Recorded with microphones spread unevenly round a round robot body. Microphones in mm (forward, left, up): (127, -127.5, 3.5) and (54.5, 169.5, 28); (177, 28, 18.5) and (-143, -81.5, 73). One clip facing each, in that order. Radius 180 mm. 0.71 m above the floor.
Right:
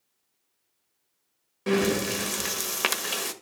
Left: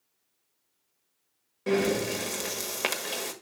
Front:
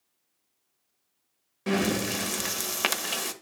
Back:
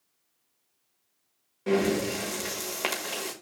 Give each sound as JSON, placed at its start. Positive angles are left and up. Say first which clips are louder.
{"t": 1.7, "sound": "breathing", "louder": "right 1 dB, back 2 dB", "azimuth_deg": -20, "distance_m": 1.1}